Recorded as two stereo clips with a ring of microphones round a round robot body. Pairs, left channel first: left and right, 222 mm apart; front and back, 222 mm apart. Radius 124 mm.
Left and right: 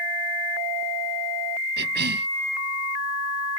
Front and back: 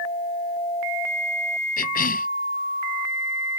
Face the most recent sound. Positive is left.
turn(degrees=-45)